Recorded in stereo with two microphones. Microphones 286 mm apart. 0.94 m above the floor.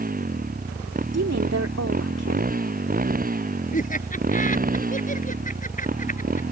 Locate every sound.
0.0 s a motorcycle: 30° right (ahead or behind)
1.1 s a woman speaking: 60° right (ahead or behind)
3.7 s laughter: 25° left (ahead or behind)